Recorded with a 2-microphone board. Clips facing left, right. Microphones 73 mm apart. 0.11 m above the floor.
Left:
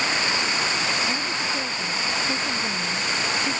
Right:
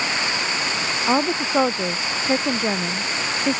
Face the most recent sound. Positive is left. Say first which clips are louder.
# right 7 dB
turn(degrees=-80)